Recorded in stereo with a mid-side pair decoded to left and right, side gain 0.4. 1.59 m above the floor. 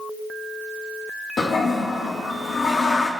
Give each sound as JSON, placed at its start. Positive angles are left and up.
{"t": 1.4, "sound": "a toilet flushing", "azimuth_deg": 55, "distance_m": 2.5}